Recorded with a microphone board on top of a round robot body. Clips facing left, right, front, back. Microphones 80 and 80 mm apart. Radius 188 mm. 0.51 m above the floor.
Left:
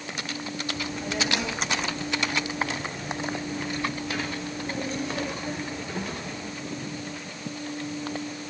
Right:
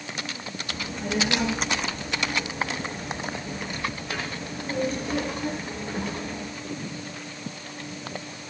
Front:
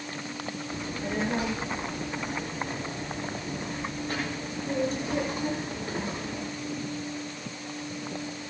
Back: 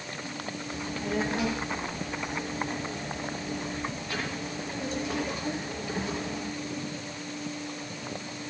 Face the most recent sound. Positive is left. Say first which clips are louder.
# right 4 dB, back 2 dB
turn(degrees=-50)